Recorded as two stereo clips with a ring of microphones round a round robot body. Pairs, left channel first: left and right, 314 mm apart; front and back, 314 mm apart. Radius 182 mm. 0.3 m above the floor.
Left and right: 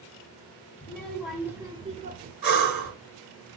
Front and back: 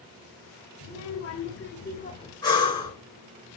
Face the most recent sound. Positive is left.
turn(degrees=-75)